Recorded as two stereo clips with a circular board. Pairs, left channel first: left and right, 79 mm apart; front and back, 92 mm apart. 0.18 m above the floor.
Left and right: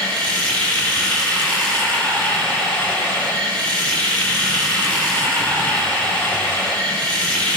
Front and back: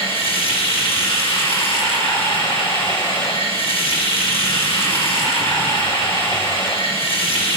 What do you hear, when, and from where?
0.0 s running water: 15° left, 9 m